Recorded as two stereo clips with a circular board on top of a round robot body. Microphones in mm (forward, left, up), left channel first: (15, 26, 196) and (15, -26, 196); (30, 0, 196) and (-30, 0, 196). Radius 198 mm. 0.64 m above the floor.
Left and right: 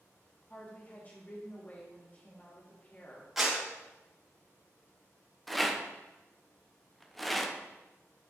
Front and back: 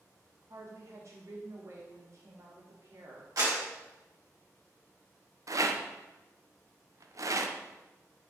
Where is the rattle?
175° left, 0.8 m.